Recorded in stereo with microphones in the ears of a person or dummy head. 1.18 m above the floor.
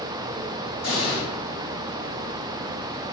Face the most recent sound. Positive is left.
turn(degrees=45)  # may be behind; listen again after turning